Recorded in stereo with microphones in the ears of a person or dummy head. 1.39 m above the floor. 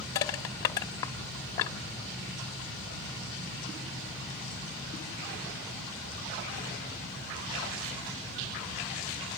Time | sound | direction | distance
0.1 | crushing | 15° left (ahead or behind) | 1.2 m